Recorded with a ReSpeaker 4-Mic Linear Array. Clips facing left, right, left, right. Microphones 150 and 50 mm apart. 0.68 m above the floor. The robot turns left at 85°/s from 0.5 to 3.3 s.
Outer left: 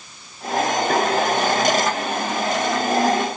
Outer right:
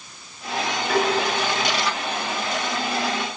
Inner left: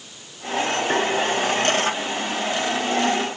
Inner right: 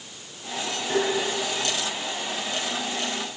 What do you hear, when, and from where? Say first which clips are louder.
0.9 s tapping: outer right 1 dB, inner left 1 dB; 40° left (ahead or behind), 7.5 m; by 1.1 s 25° left (ahead or behind), 7.5 m